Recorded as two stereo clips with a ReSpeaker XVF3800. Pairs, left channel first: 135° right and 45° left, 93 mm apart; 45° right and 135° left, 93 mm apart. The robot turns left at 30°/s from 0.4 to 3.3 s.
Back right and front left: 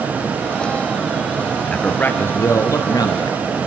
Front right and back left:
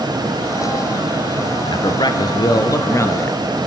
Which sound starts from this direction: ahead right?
A man speaking, at 1.6 s.